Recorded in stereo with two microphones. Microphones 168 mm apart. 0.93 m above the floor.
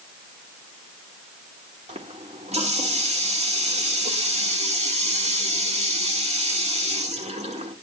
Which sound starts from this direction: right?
A running tap, at 1.9 s.